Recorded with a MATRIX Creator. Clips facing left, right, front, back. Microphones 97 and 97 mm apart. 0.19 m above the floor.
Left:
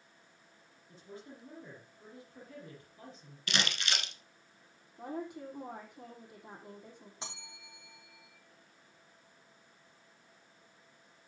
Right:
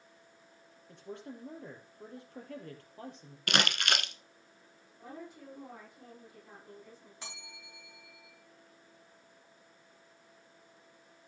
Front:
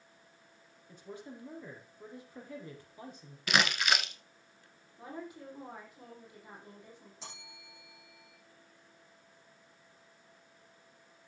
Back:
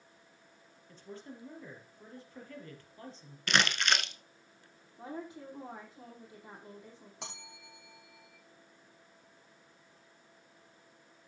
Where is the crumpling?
85° right, 1.3 m.